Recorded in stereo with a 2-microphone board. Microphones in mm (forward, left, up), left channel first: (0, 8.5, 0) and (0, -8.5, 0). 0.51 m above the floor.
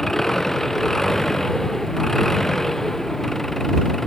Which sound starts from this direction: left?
An engine running, at 0.0 s.